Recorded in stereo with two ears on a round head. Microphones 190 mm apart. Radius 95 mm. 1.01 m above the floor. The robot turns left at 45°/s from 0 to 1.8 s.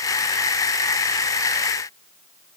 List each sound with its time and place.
Only background noise.